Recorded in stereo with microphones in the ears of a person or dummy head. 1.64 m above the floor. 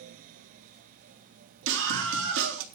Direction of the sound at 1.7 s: 75° right (ahead or behind).